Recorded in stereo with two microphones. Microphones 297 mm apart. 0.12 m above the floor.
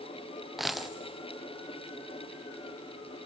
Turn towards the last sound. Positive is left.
turn(degrees=0)  # may be behind; listen again after turning